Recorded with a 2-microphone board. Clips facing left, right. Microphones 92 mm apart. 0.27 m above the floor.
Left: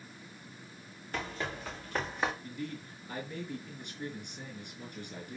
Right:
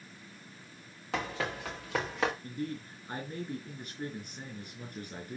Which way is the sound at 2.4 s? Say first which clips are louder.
Right 3 dB; 45° right (ahead or behind).